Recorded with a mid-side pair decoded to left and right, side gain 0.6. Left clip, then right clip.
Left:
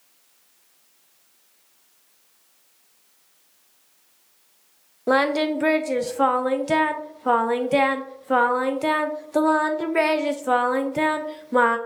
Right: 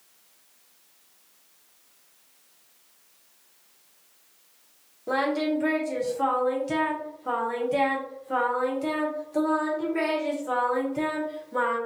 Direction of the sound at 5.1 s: 50° left.